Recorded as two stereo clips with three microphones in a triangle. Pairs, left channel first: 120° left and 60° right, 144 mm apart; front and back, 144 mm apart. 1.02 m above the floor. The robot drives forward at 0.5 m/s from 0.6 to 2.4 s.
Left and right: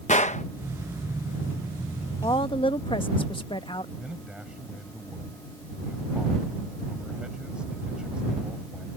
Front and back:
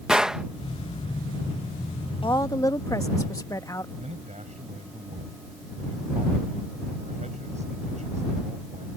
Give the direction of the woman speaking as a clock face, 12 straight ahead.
10 o'clock.